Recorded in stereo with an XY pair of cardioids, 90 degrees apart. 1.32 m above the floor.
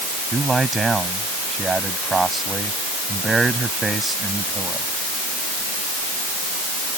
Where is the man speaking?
25° right.